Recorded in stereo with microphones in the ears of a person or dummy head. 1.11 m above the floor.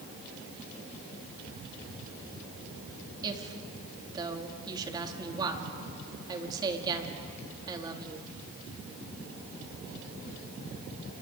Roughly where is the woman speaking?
Right.